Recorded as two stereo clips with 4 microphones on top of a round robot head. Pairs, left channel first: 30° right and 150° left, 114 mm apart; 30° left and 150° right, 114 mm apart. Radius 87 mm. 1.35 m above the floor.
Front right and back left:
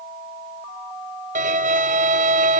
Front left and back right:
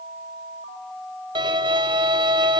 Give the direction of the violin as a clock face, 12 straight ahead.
7 o'clock.